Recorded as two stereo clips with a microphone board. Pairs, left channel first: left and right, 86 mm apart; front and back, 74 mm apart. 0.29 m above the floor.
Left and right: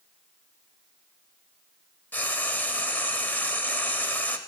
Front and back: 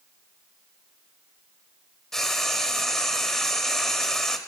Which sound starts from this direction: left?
Frying, at 2.1 s.